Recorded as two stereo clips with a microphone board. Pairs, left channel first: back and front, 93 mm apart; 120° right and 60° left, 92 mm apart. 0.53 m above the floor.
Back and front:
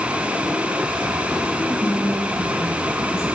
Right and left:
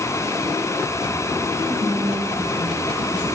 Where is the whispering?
50° left, 2 m.